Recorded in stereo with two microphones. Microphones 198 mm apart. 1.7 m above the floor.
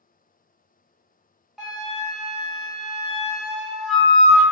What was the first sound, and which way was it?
A flute, centre (ahead or behind).